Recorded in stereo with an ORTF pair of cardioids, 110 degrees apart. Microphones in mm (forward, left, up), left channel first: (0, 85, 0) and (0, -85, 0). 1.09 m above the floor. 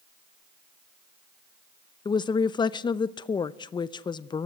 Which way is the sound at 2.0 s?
25° left.